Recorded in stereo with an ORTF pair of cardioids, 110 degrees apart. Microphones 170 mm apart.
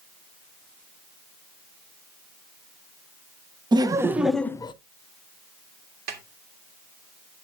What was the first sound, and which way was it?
Laughter, 25° right.